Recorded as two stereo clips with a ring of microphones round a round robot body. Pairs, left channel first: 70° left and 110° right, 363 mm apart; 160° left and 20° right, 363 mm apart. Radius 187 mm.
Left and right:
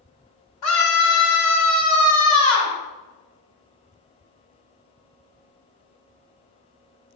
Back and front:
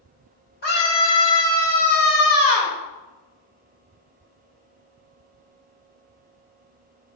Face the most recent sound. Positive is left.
turn(degrees=95)